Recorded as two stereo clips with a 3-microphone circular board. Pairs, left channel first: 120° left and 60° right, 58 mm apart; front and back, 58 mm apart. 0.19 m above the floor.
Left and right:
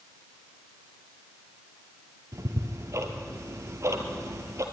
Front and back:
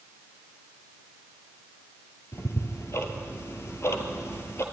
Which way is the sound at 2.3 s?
35° right.